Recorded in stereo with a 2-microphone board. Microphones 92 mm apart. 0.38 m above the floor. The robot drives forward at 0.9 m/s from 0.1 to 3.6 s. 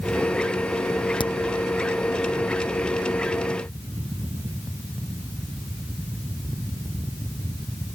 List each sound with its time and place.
1.2 s a crack: 60° left (ahead or behind)